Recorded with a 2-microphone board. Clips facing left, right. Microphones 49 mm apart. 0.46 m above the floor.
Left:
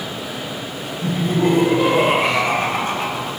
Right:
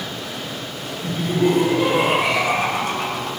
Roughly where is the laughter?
Left.